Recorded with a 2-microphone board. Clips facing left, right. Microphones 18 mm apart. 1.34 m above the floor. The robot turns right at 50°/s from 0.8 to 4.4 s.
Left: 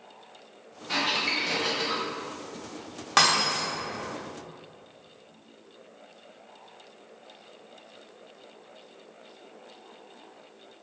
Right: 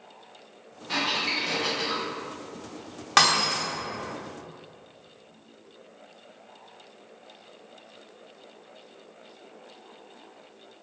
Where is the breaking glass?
20° right (ahead or behind), 0.6 m; by 3.6 s 5° right (ahead or behind), 0.6 m.